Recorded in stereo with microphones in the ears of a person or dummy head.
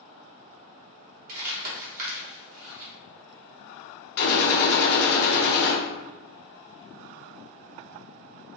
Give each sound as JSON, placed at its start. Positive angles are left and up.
{"t": 1.3, "sound": "crumpling", "side_deg": -50, "distance_m": 1.8}
{"t": 4.2, "sound": "a gunshot", "side_deg": 55, "distance_m": 1.0}